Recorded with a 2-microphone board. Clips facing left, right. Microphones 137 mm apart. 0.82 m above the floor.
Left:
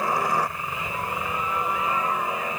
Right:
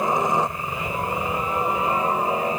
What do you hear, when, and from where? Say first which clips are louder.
0.0 s a helicopter: right 3 dB; 20° right (ahead or behind); by 2.6 s 35° right (ahead or behind)